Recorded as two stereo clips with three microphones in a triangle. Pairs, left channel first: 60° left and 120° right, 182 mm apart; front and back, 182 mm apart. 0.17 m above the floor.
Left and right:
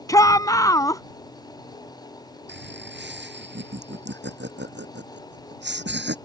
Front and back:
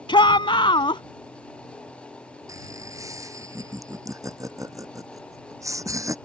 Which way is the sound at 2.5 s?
105° right.